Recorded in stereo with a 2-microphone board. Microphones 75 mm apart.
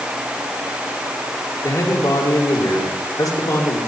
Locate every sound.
1.6 s a man speaking: 55° left (ahead or behind), 6.5 m